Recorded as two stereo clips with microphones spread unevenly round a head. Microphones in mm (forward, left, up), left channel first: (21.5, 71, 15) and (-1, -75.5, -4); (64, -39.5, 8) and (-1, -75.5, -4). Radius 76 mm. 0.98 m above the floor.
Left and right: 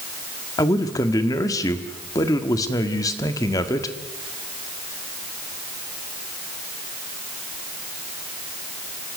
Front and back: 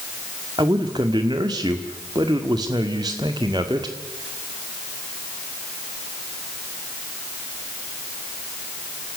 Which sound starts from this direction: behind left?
A man speaking, at 0.6 s.